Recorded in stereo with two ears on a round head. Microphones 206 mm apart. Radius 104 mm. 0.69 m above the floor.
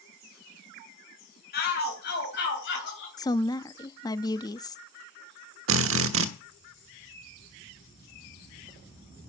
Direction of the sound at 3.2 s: 15° left (ahead or behind).